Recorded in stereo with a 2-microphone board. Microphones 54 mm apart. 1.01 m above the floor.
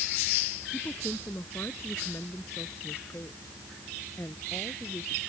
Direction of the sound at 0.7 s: 50° left (ahead or behind).